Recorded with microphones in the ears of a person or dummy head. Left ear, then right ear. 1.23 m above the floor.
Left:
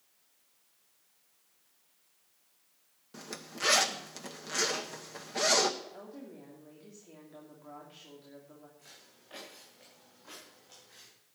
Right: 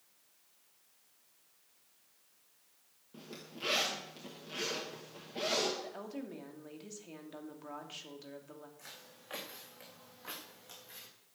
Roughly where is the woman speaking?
Right.